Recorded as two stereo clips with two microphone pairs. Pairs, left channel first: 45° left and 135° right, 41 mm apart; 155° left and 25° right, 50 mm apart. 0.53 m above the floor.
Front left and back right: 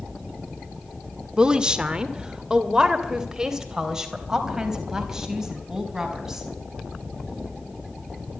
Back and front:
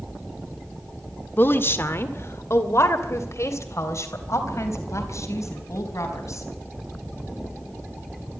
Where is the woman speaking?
170° left, 1.7 m; by 6.5 s 150° left, 5.5 m.